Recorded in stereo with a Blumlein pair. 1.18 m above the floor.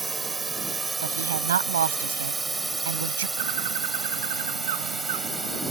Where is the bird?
55° right.